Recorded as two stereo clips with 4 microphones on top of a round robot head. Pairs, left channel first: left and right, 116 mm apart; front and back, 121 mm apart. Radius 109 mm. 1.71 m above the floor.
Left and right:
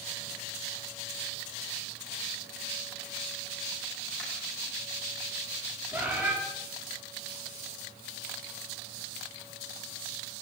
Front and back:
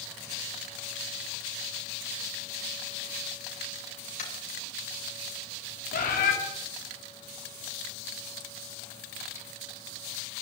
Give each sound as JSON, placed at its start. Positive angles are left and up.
{"t": 4.2, "sound": "tapping", "azimuth_deg": 5, "distance_m": 7.5}
{"t": 5.9, "sound": "a bird", "azimuth_deg": -10, "distance_m": 3.5}